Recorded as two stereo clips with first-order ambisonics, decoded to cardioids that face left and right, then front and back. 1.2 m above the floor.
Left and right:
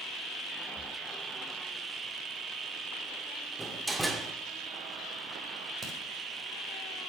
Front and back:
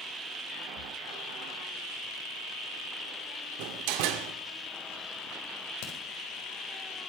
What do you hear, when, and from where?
0.8 s breathing: 20° left, 0.7 m
3.6 s a door slam: 175° right, 1.9 m
5.8 s a crack: 15° right, 5 m